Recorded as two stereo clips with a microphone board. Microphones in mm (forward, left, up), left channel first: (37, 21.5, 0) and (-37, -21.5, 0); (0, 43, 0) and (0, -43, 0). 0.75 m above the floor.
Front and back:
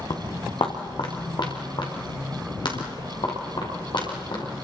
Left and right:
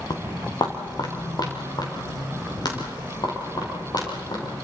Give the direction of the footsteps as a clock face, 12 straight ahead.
10 o'clock.